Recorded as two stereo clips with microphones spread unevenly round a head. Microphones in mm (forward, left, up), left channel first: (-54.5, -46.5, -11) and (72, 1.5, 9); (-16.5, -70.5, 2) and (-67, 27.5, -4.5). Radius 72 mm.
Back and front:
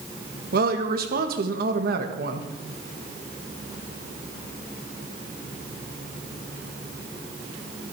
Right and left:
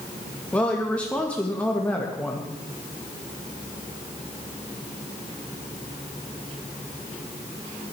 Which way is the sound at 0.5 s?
20° left.